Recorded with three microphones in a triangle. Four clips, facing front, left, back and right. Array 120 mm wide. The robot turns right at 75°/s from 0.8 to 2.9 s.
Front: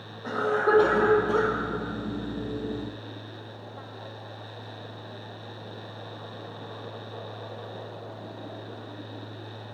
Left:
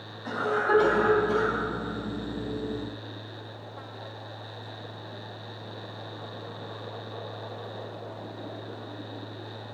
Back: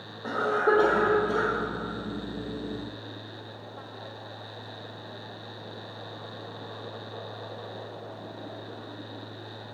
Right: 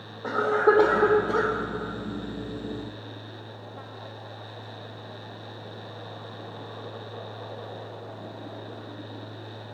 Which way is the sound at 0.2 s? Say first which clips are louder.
Right 5 dB, even; 110° right.